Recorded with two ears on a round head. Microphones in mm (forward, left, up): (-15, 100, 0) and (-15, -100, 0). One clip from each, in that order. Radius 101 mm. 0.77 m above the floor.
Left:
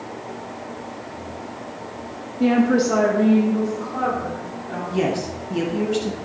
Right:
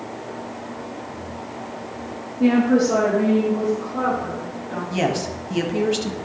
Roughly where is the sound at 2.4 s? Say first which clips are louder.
Even; left.